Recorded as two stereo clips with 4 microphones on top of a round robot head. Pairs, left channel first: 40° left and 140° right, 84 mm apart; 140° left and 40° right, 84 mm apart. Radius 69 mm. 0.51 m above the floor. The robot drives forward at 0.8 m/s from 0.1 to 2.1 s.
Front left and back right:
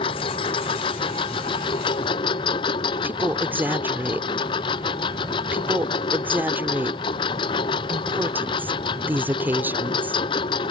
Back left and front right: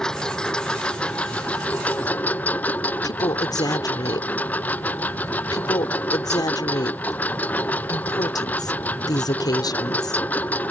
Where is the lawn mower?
55° left; by 10.7 s 65° left.